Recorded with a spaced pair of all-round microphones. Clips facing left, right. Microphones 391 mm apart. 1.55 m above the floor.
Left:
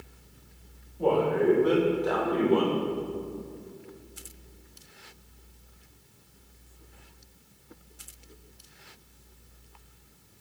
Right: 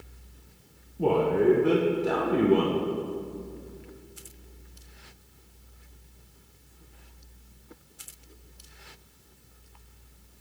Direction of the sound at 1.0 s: 40° right (ahead or behind).